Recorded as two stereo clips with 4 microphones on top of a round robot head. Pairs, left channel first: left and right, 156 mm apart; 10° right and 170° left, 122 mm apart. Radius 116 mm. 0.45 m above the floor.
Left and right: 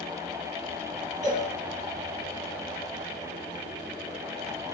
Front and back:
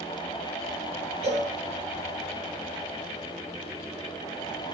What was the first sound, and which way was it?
A cowbell, 130° right.